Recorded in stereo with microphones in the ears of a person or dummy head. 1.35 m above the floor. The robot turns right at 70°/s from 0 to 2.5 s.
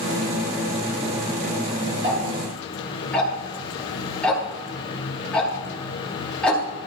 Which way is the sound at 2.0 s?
25° right (ahead or behind).